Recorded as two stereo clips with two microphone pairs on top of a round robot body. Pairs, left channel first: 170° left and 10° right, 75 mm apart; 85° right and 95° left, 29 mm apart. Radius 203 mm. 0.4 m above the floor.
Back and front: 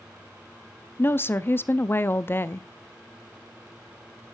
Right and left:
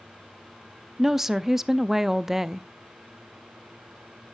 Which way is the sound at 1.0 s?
140° left.